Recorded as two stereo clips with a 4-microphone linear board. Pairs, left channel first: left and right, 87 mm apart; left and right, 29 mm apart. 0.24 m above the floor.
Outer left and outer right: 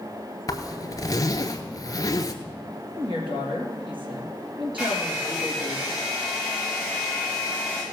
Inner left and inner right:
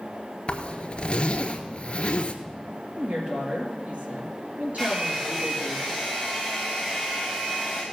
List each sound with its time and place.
0.5 s a zipper: 40° left (ahead or behind), 1.1 m
3.0 s a woman speaking: 75° right (ahead or behind), 4.5 m
4.8 s a hair dryer: 15° right (ahead or behind), 5.5 m